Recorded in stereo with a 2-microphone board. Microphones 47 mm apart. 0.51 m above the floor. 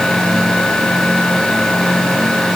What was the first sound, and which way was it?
Only background noise.